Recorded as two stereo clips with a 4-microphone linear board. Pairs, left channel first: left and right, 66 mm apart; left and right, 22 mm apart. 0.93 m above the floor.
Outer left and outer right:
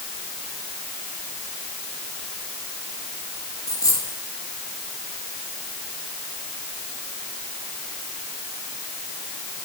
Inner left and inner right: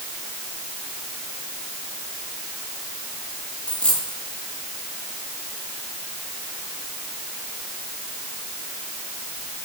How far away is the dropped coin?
About 7 m.